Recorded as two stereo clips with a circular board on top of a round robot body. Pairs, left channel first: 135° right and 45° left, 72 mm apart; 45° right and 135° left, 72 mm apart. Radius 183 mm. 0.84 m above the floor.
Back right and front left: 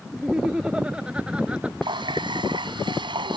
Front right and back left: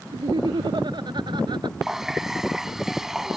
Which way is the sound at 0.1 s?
125° left.